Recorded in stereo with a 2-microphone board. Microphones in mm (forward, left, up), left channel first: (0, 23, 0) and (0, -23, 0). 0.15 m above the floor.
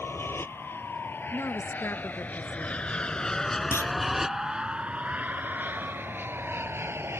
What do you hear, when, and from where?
0.0 s an aircraft: 55° left (ahead or behind); by 7.2 s 60° right (ahead or behind)
1.3 s a woman speaking: 55° left (ahead or behind)
3.7 s a clunk: 70° left (ahead or behind)